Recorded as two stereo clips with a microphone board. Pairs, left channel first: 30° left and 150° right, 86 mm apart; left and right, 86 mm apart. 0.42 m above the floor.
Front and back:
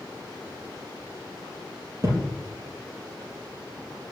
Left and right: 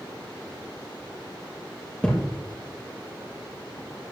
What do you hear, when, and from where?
2.0 s a thud: 165° left, 3 m